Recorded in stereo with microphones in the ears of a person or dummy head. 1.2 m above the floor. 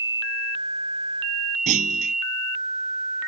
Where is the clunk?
40° right (ahead or behind).